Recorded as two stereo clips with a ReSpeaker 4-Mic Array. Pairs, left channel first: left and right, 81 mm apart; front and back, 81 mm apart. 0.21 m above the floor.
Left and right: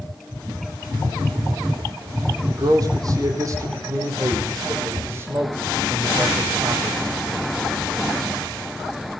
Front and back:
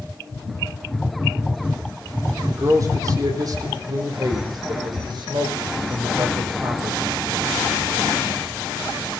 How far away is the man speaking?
About 7 m.